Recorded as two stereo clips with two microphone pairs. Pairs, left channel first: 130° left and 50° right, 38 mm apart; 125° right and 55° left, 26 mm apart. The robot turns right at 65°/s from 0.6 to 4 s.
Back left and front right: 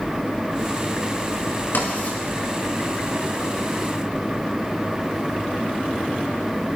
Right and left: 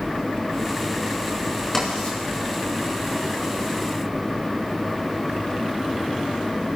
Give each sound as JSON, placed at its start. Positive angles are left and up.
{"t": 1.7, "sound": "writing", "azimuth_deg": 160, "distance_m": 5.0}